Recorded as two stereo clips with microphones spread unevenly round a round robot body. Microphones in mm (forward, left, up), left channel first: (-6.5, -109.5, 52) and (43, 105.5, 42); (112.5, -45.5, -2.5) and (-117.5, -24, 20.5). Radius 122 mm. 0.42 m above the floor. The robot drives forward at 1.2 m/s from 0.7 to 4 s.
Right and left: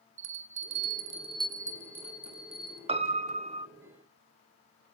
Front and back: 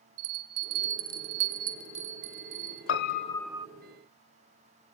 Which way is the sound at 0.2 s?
115° left.